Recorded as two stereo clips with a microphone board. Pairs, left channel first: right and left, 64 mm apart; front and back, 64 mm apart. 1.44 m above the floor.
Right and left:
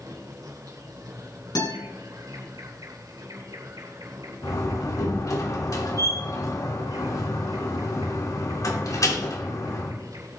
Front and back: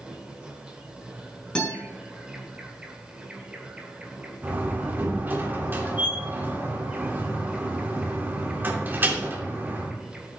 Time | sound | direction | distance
0.0 | an insect | 105° left | 2.5 m
1.6 | a guitar | 75° right | 6.5 m
4.4 | a door slam | 120° right | 2.5 m